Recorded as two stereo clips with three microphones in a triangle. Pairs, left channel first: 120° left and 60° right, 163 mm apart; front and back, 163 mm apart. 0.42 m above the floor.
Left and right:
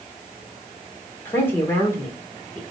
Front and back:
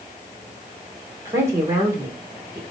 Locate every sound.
1.2 s a woman speaking: 160° left, 1.3 m